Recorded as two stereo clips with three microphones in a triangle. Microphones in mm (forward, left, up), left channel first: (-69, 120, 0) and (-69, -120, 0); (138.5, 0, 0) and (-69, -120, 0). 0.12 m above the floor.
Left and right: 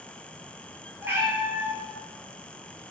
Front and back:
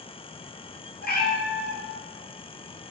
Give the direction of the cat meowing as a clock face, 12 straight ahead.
12 o'clock.